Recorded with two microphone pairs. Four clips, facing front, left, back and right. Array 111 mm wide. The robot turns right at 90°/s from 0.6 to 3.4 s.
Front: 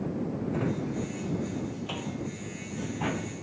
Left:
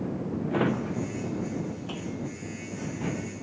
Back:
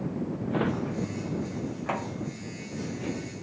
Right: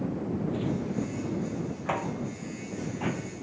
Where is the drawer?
120° left; by 3.4 s 10° left.